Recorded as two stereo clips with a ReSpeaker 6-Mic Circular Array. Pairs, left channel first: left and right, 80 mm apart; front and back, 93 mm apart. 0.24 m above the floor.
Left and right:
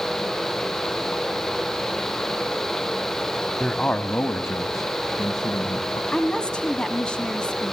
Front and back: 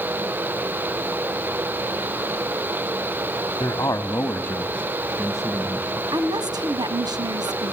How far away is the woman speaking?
About 1.5 m.